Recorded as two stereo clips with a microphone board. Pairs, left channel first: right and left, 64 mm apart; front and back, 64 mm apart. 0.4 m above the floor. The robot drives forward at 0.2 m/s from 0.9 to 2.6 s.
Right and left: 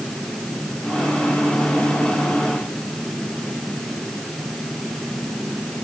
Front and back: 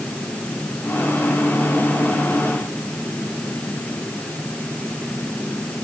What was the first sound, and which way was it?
Only background noise.